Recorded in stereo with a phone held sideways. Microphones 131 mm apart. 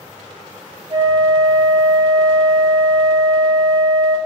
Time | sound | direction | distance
0.9 | a flute | 45° right (ahead or behind) | 2.5 m